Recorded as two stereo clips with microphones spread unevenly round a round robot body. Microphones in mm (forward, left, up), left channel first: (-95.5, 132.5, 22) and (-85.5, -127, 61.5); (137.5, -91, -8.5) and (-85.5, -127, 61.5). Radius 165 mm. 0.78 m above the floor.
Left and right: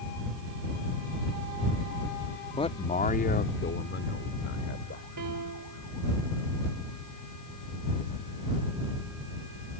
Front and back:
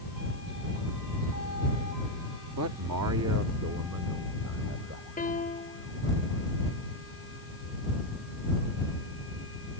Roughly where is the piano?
Ahead right.